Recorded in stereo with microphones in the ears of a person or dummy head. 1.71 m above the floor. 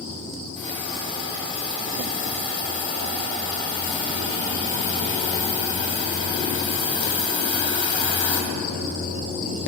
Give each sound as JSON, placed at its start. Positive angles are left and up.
{"t": 0.6, "sound": "a hiss", "side_deg": 30, "distance_m": 3.0}